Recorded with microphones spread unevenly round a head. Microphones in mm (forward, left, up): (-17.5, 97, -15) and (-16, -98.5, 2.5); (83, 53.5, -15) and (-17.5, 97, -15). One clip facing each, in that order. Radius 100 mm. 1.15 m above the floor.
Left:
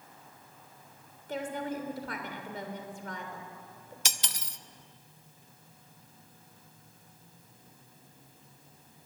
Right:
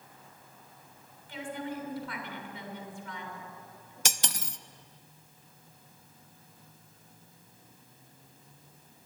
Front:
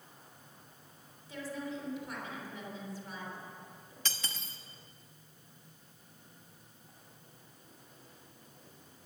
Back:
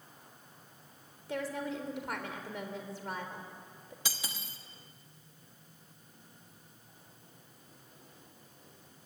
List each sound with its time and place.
1.3 s a woman speaking: 140° left, 3.5 m
4.0 s cutlery clinking: 125° right, 0.7 m